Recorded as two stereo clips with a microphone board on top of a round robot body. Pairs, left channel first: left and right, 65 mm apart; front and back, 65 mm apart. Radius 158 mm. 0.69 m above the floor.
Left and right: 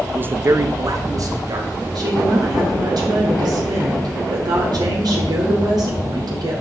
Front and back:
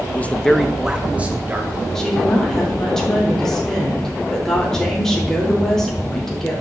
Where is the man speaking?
40° right, 1.0 m; by 1.9 s 115° right, 2.5 m.